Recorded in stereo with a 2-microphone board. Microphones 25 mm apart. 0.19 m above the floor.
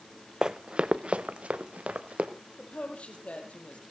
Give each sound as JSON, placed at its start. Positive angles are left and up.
{"t": 0.4, "sound": "running footsteps", "side_deg": -25, "distance_m": 0.5}
{"t": 2.6, "sound": "a woman speaking", "side_deg": 55, "distance_m": 4.5}